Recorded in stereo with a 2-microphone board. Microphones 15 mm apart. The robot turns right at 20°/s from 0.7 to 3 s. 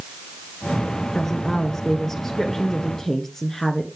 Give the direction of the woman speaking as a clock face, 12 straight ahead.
11 o'clock.